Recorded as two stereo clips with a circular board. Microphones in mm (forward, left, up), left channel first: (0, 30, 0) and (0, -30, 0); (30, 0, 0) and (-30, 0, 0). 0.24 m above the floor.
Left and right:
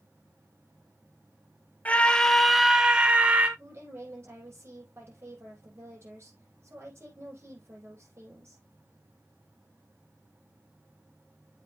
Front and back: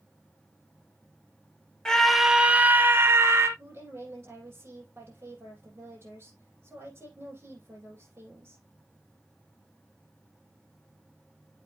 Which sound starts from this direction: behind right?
A woman speaking, at 3.6 s.